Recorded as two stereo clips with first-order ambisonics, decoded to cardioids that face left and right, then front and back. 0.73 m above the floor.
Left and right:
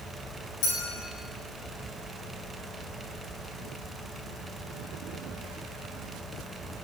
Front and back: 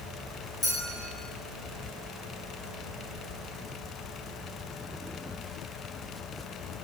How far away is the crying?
No crying in this recording.